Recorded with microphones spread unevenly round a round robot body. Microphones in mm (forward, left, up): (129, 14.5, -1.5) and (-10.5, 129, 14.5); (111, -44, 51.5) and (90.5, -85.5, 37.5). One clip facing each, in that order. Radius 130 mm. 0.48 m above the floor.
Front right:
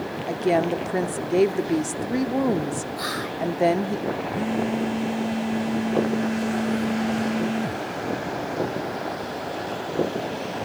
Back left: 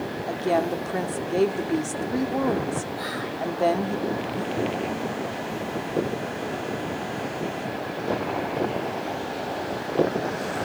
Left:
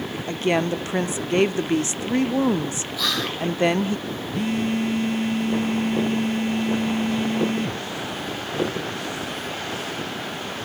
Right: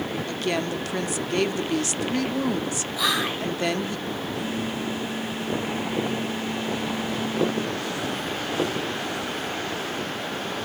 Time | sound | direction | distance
0.3 | a woman speaking | 5° right | 0.8 m
3.0 | whispering | 60° right | 1.1 m
4.3 | a phone buzzing | 25° left | 0.9 m